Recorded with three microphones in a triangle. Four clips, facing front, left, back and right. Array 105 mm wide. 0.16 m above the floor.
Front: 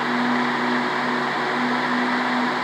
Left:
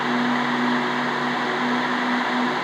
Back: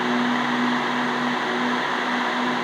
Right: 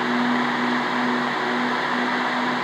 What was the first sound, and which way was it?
Only background noise.